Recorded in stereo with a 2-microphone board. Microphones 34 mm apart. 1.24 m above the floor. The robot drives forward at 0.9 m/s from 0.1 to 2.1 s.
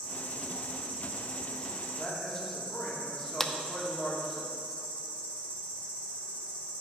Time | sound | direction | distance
0.0 | an insect | 60° left (ahead or behind) | 3.5 m
2.0 | a man speaking | 10° left (ahead or behind) | 2.5 m
3.4 | a clap | 15° left (ahead or behind) | 0.6 m